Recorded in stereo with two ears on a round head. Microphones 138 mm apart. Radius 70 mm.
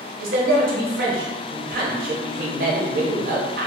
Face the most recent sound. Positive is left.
turn(degrees=-60)  # may be behind; listen again after turning